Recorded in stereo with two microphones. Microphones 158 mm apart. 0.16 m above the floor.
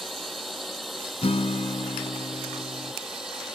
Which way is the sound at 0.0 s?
Centre (ahead or behind).